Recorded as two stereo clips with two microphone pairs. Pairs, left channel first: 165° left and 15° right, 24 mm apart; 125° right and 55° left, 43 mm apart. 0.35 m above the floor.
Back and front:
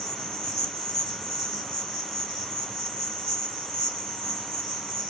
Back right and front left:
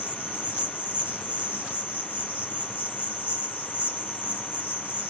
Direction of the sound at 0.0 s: 95° left.